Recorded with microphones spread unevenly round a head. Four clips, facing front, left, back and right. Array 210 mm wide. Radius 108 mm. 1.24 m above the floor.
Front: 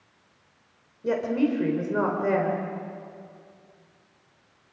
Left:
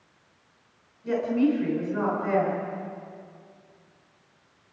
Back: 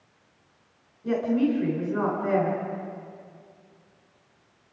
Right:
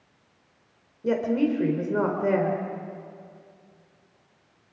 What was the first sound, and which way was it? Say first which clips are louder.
A woman speaking: even, even; 65° right.